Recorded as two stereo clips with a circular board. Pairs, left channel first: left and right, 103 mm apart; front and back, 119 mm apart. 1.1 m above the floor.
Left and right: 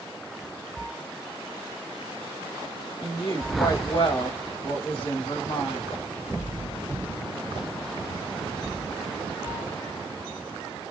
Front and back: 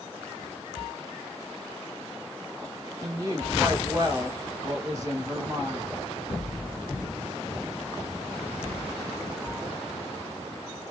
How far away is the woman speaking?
About 1.2 m.